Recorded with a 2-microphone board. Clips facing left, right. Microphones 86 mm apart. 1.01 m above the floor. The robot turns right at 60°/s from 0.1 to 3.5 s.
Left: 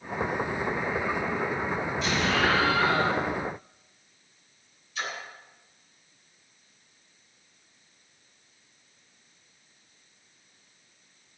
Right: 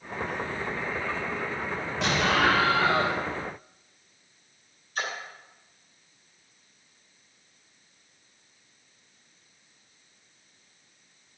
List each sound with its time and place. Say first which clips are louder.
2.0 s an explosion: right 3 dB; 80° right, 3.5 m; by 3.2 s 10° right, 3.5 m
5.0 s a splash: right 2 dB; 45° right (ahead or behind), 3.5 m